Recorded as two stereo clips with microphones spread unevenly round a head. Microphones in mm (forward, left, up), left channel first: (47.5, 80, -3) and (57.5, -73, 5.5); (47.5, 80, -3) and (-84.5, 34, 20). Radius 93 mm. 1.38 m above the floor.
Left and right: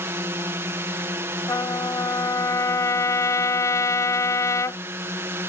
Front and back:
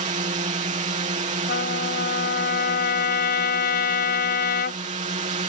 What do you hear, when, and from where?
0.0 s a drone: 160° right
1.5 s a trumpet: 25° left